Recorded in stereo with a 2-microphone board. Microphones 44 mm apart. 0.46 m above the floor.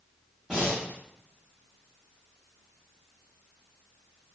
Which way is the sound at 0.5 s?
15° right (ahead or behind).